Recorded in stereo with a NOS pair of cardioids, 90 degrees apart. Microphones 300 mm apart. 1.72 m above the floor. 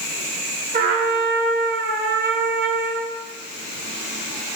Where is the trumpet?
35° right, 1.7 m.